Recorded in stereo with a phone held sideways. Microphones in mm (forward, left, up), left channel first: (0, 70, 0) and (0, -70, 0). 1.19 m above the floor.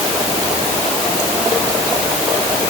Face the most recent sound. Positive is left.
No sound to turn to.